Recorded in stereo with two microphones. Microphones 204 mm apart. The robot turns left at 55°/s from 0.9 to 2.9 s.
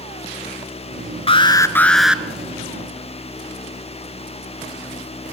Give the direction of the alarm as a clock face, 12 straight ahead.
11 o'clock.